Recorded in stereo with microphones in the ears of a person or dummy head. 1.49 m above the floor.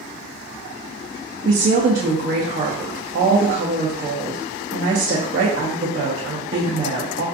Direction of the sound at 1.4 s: 40° right (ahead or behind).